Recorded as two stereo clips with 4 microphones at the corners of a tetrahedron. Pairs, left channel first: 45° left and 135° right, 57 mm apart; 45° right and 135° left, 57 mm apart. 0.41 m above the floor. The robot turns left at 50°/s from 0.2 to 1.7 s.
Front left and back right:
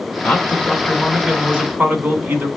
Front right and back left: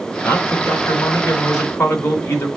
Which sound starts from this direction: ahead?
A man speaking, at 0.2 s.